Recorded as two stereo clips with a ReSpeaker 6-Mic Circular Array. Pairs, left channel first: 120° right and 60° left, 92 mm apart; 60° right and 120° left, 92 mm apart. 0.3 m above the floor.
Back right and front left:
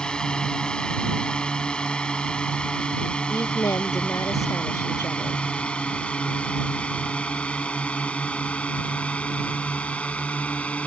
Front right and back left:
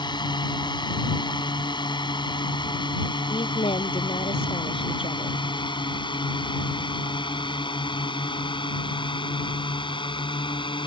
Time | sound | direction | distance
0.0 | a drone | 40° right | ?
3.3 | a woman speaking | 65° right | ?